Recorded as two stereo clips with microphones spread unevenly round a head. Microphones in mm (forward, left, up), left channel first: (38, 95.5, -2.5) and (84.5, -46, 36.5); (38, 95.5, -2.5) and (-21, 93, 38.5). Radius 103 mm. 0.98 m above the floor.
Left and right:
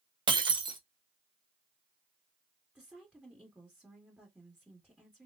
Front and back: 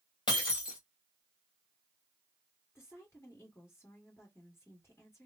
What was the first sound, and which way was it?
Breaking glass, 45° right.